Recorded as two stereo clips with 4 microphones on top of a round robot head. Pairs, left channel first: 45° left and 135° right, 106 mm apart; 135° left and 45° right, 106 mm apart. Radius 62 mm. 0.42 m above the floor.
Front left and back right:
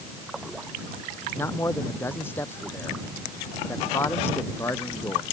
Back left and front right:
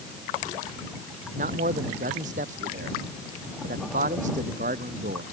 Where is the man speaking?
30° right.